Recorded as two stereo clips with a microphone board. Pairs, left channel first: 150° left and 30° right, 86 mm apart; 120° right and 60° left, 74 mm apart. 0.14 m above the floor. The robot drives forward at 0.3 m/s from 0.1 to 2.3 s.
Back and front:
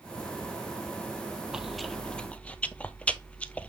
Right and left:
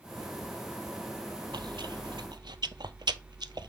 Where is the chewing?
55° left, 0.6 m; by 3.7 s 75° left, 0.5 m.